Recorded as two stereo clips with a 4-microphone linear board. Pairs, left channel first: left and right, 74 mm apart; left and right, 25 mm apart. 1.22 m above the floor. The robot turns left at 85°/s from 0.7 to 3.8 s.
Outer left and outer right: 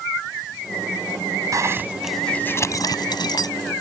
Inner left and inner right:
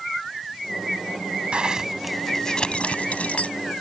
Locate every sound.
1.5 s a zipper: 130° right; by 3.5 s 65° left